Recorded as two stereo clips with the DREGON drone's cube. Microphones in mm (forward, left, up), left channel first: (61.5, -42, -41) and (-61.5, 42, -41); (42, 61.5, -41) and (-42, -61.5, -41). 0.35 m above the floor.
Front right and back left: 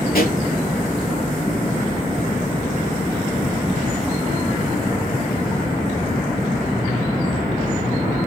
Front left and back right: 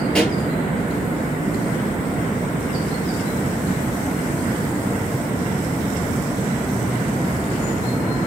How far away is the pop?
About 6 m.